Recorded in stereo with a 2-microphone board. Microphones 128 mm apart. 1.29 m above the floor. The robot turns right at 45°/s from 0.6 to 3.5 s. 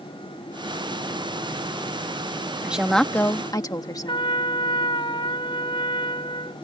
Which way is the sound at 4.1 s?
40° left (ahead or behind).